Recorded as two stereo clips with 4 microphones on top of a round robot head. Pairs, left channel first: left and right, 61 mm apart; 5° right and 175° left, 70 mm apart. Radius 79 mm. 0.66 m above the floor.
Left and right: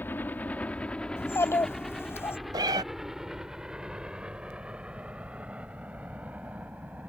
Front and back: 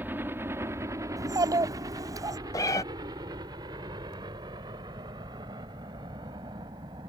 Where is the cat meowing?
55° right.